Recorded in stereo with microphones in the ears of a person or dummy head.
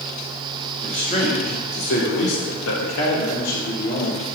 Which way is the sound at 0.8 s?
35° left (ahead or behind).